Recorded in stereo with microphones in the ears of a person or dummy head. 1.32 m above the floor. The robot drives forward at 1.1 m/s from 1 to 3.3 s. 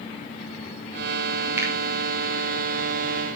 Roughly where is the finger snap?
Centre.